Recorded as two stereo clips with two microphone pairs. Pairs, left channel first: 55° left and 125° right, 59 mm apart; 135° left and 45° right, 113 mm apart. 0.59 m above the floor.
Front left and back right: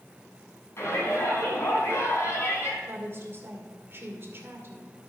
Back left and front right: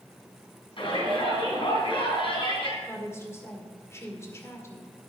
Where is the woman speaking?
165° right, 1.9 m.